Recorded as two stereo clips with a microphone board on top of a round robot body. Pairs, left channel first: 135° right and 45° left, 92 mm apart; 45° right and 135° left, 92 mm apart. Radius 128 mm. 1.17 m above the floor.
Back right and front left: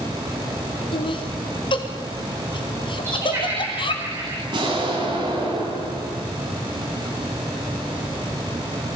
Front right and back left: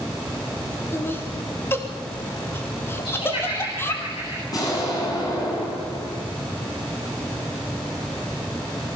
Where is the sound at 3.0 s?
15° right, 8.5 m.